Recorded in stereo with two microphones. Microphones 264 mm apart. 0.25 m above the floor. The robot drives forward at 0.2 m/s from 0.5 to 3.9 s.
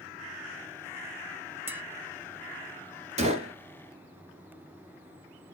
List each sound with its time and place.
1.7 s tapping: 10° right (ahead or behind), 0.7 m
3.2 s a gunshot: 25° right (ahead or behind), 0.8 m